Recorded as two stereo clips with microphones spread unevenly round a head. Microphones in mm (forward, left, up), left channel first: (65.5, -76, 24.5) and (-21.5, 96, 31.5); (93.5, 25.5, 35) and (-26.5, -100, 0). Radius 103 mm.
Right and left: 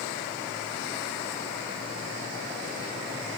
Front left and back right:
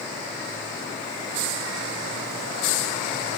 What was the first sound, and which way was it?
Only background noise.